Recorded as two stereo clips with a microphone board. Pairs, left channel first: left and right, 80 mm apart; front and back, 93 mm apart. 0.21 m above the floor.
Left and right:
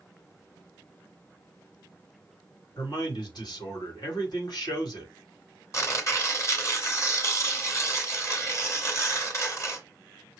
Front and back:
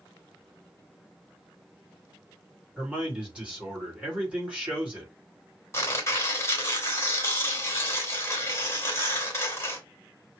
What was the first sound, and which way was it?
A man speaking, 105° left.